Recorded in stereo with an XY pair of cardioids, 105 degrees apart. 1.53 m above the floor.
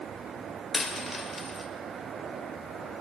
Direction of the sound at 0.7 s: 30° left.